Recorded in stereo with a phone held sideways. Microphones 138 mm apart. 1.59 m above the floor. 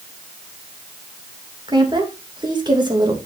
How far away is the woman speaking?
About 2.5 m.